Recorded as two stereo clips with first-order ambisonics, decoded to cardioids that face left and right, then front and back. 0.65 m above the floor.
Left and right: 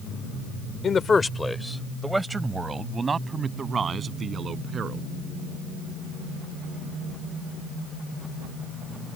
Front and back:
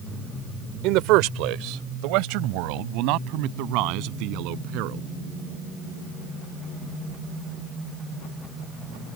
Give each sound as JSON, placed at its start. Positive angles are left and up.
{"t": 0.8, "sound": "a man speaking", "azimuth_deg": 155}